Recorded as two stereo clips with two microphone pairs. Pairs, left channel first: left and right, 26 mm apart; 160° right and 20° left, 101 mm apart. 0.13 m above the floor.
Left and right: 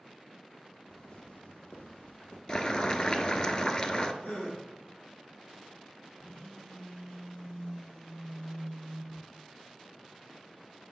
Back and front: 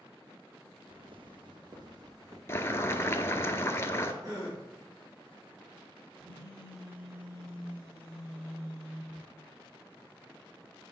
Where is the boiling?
145° left, 0.6 m.